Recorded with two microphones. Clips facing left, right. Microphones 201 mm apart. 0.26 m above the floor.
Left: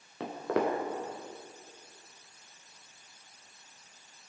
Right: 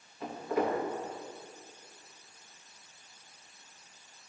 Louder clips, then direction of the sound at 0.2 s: Left 1 dB; 85° left.